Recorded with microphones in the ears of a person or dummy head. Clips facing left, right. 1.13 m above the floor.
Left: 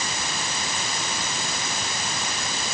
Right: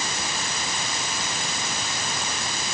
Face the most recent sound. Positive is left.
No sound to turn to.